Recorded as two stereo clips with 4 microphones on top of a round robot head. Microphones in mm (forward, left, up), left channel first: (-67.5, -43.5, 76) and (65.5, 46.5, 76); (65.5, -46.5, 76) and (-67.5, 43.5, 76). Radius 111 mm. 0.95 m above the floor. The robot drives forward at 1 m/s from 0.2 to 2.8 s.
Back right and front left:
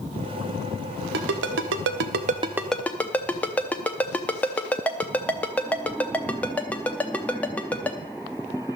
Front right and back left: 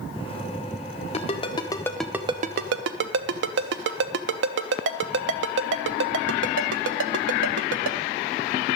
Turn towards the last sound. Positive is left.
turn(degrees=130)